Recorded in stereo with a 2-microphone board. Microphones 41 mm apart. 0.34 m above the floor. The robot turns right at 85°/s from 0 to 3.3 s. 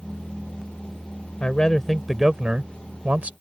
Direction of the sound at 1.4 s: 130° left.